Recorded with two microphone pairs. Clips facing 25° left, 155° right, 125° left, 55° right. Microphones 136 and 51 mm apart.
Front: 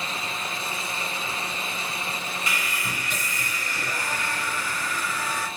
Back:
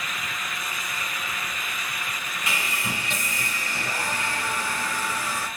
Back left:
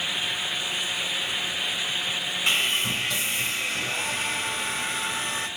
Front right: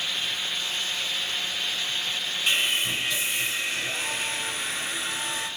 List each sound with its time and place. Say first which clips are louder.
2.5 s sawing: back 4 dB, even; 140° left, 3.5 m